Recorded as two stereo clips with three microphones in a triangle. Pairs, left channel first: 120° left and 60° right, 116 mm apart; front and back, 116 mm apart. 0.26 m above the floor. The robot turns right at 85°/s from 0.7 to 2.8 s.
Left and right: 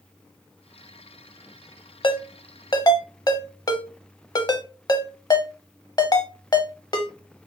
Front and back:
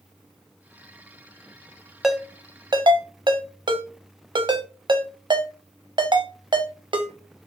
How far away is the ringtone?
About 0.6 m.